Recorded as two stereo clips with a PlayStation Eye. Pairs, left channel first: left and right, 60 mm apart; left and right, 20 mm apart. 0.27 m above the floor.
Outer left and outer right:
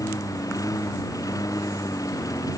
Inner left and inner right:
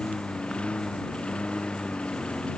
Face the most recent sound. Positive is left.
turn(degrees=80)